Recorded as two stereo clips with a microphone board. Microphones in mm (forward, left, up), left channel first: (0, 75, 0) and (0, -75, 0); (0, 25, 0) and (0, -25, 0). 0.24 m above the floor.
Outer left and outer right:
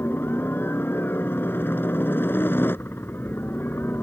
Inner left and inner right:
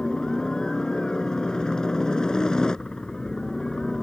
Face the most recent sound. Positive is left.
turn(degrees=15)  # may be behind; listen again after turning